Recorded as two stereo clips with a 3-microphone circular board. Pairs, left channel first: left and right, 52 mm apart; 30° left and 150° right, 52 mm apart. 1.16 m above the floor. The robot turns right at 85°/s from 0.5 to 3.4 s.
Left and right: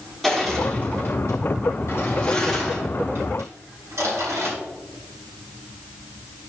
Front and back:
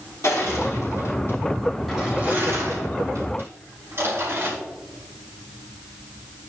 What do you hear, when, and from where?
0.2 s crushing: straight ahead, 3.5 m; by 4.5 s 115° right, 3.5 m